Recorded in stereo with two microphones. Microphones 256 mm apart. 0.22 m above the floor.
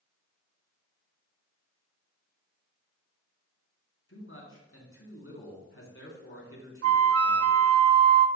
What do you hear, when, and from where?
4.1 s a man speaking: 55° left (ahead or behind), 2.5 m
6.8 s a flute: 65° right (ahead or behind), 0.5 m